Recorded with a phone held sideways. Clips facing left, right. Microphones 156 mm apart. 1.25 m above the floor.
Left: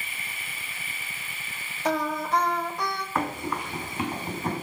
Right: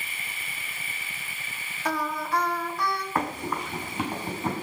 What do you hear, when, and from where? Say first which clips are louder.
1.9 s singing: left 3 dB; 20° left (ahead or behind), 1.2 m
3.1 s running footsteps: left 3 dB; 20° right (ahead or behind), 4 m; by 4.6 s 25° right (ahead or behind), 5 m